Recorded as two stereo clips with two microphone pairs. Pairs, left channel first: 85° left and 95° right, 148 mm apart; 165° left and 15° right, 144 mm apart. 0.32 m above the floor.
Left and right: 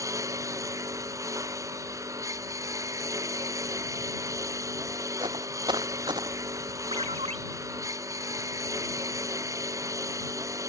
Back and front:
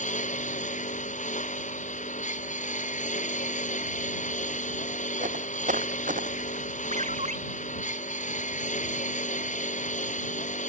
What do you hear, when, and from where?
0.0 s a lawn mower: 165° right
5.2 s footsteps: 40° right; by 6.7 s 35° right
6.9 s a ringtone: 50° right